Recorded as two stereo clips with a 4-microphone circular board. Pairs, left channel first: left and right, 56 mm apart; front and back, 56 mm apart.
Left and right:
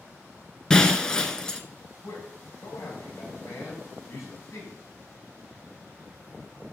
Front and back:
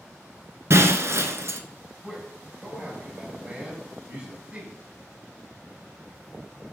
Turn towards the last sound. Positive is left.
turn(degrees=110)